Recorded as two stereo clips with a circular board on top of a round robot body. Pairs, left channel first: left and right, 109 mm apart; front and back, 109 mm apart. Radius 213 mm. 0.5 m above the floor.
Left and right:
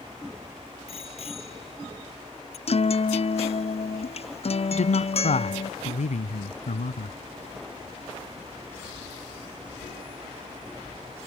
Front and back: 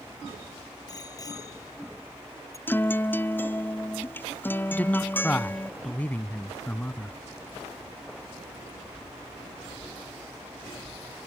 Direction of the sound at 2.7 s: 70° left.